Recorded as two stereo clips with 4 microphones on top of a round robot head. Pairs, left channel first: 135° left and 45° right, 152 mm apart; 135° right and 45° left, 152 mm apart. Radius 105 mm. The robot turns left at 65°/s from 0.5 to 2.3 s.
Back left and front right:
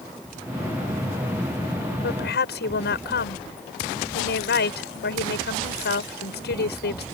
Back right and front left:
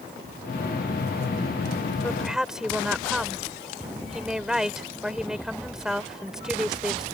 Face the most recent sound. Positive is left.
turn(degrees=130)